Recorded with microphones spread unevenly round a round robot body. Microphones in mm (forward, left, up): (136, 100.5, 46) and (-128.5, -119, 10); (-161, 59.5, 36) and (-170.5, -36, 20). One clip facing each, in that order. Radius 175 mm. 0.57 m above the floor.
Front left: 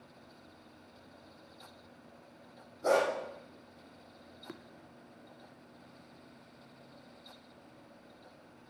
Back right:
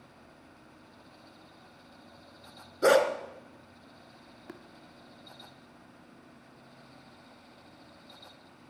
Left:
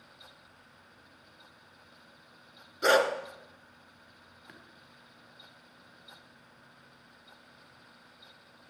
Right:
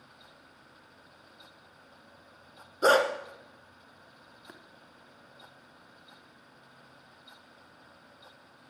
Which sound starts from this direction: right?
Tapping, at 4.5 s.